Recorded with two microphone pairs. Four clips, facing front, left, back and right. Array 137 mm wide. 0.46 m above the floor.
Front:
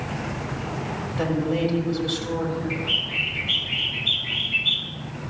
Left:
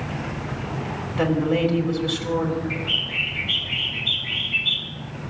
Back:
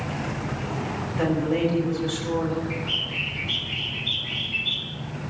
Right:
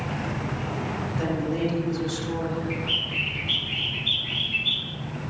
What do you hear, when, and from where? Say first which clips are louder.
1.2 s a woman speaking: left 7 dB, back 1 dB; 85° left, 4 m
2.7 s a bird: left 1 dB, front 2 dB; 50° left, 2.5 m